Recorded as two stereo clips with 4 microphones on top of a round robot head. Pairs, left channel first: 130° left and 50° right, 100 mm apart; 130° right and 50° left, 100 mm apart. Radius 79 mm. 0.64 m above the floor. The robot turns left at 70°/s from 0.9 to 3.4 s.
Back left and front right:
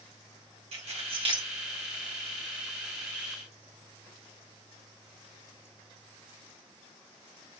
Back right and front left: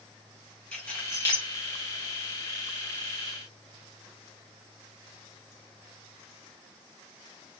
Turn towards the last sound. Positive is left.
turn(degrees=130)